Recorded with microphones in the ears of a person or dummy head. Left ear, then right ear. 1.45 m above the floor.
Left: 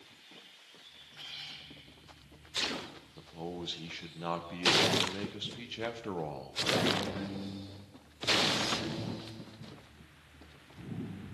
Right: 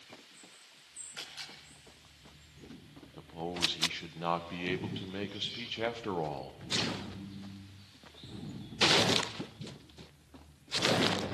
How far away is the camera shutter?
About 7 m.